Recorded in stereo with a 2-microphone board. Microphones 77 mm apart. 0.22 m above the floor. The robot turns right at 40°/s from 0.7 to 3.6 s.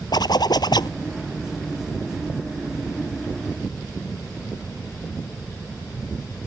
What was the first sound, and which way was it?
A zipper, 70° left (ahead or behind).